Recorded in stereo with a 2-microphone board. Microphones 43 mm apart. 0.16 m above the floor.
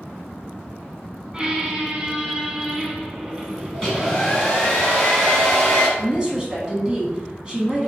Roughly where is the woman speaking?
Centre.